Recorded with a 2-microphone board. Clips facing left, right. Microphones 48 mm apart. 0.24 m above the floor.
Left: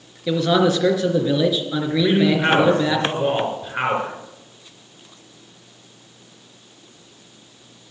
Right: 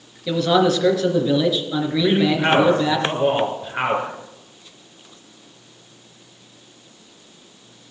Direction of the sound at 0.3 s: 10° left (ahead or behind).